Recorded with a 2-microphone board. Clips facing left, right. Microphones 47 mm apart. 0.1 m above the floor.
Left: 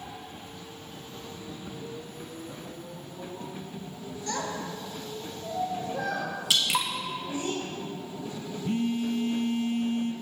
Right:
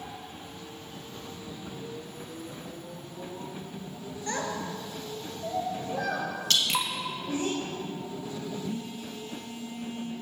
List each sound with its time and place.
4.3 s a child speaking: 30° right (ahead or behind), 1.0 m; by 7.5 s 70° right (ahead or behind), 3 m
6.5 s dripping: 10° left (ahead or behind), 1.1 m
8.6 s a phone buzzing: 60° left (ahead or behind), 0.6 m